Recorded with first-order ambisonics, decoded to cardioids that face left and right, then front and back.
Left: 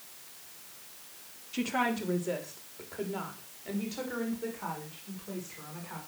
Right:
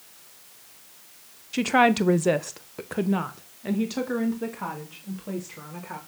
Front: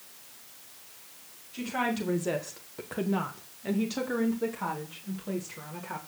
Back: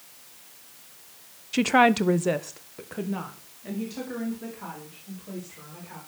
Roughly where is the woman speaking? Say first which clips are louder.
Right 11 dB, back 11 dB; behind right.